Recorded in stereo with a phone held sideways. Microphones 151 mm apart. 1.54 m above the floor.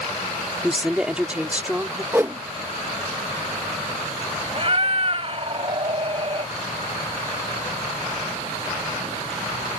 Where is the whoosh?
15° right (ahead or behind).